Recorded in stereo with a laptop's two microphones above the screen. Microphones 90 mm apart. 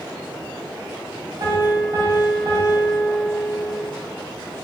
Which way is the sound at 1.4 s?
55° right (ahead or behind).